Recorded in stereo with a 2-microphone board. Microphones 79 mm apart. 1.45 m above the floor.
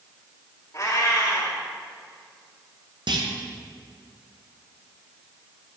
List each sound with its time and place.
0.7 s a cat meowing: 40° left (ahead or behind), 1.5 m
3.1 s a clunk: 70° right (ahead or behind), 0.7 m